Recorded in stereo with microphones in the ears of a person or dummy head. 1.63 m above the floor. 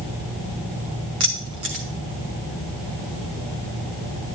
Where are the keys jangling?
20° right (ahead or behind), 0.5 m.